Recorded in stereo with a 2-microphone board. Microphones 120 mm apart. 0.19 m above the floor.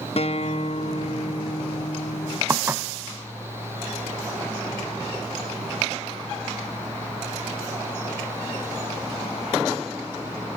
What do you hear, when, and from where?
0.2 s a guitar: 55° left (ahead or behind), 0.6 m
2.5 s dishes clattering: 20° right (ahead or behind), 0.7 m